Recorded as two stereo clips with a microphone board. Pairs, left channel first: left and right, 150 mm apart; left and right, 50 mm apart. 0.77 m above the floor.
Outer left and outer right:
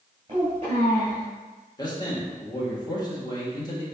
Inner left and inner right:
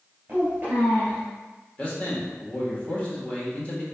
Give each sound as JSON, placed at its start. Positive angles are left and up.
{"t": 0.3, "sound": "a child speaking", "side_deg": -40, "distance_m": 2.0}
{"t": 1.8, "sound": "a man speaking", "side_deg": 25, "distance_m": 1.3}